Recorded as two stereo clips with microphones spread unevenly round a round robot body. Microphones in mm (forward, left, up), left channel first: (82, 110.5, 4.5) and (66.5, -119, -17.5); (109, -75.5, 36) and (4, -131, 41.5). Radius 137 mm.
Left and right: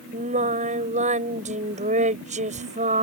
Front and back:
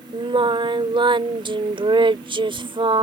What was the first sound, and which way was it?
Singing, 130° right.